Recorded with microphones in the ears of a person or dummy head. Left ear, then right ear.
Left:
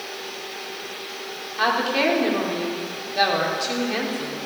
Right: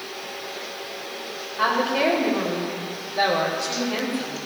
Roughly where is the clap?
I don't hear a clap.